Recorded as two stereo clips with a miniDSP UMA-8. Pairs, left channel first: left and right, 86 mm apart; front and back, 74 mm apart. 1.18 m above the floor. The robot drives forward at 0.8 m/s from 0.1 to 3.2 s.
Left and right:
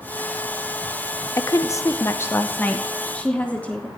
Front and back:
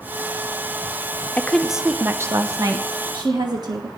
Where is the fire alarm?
I don't hear a fire alarm.